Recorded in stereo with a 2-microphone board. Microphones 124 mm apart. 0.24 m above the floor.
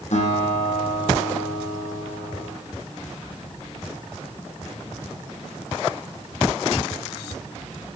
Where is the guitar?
70° left (ahead or behind), 8.5 m.